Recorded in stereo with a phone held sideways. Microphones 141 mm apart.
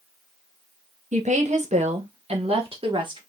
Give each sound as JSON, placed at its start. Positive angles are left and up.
{"t": 1.1, "sound": "a woman speaking", "side_deg": -55, "distance_m": 1.3}